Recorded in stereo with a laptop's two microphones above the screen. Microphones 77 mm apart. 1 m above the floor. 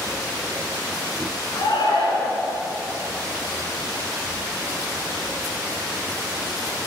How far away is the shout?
About 9 m.